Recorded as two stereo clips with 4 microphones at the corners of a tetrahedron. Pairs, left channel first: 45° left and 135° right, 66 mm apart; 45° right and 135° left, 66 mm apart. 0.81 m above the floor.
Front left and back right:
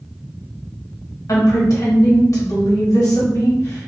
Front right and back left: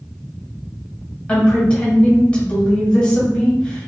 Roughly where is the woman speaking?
Ahead left.